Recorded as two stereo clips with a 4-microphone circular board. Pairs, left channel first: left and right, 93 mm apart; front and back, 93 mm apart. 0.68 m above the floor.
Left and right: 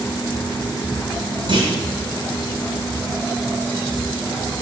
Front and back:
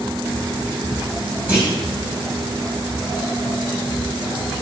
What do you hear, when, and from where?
1.5 s a clunk: 110° right, 2 m